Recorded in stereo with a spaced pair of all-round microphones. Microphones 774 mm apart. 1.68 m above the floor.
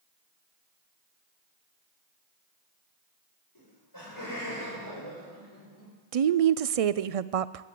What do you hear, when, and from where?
3.5 s laughter: 30° left (ahead or behind), 7.5 m; by 5.9 s 15° left (ahead or behind), 7 m
6.1 s a woman speaking: 55° right (ahead or behind), 0.5 m